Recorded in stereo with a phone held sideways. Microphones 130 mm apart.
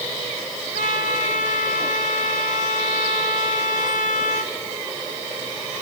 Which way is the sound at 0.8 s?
80° left.